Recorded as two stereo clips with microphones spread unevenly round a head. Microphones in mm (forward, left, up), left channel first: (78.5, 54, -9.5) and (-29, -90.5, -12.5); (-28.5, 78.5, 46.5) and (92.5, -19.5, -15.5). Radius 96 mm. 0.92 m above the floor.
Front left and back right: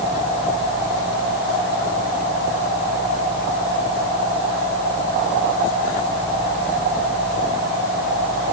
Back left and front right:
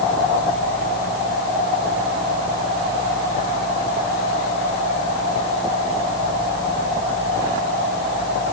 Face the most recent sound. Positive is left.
No sound to turn to.